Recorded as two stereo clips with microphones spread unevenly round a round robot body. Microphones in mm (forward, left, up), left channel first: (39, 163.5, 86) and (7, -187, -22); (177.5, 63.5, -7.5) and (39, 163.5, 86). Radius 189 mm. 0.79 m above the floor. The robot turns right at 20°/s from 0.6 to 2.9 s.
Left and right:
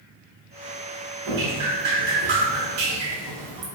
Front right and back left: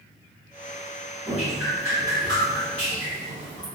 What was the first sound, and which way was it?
Dripping, 135° right.